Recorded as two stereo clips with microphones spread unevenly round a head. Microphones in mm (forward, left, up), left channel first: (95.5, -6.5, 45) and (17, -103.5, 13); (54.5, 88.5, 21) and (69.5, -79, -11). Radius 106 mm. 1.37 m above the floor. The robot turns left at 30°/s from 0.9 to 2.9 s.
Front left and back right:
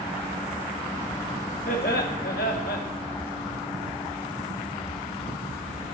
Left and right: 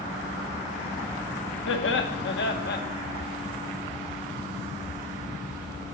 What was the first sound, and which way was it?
Laughter, 105° left.